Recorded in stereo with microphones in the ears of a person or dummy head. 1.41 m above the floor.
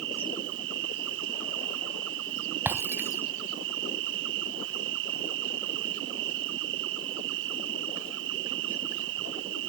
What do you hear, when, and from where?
0.0 s an insect: 70° right (ahead or behind)
2.6 s breaking glass: 10° right (ahead or behind)